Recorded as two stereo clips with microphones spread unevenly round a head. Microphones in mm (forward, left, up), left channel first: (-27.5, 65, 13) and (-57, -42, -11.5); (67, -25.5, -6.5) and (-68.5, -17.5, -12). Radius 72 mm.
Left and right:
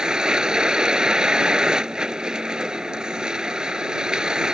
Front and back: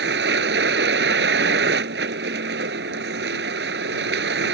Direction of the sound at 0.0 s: 170° left.